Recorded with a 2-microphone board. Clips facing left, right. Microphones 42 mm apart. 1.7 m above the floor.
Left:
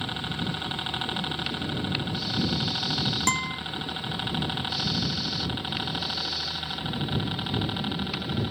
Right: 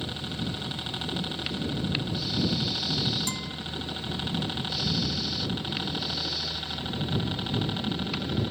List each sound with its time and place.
0.0 s a helicopter: 30° left (ahead or behind); by 8.5 s 10° left (ahead or behind)
3.3 s a guitar: 60° left (ahead or behind)